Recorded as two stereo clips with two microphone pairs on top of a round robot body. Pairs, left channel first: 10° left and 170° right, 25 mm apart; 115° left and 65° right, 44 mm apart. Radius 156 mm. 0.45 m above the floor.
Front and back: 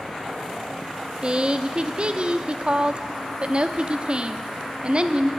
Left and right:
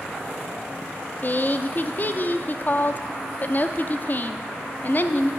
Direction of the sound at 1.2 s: 160° left.